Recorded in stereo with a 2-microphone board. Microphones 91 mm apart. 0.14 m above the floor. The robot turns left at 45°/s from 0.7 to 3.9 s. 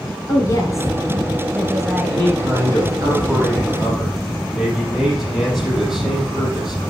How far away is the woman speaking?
About 2.5 m.